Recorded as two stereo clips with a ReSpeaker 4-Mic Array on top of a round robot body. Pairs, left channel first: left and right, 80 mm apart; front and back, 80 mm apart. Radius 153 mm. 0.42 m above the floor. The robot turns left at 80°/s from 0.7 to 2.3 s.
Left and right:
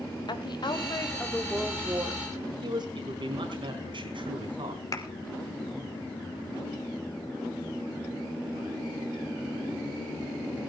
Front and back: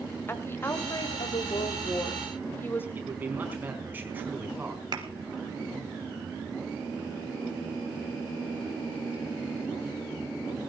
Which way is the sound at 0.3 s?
65° left.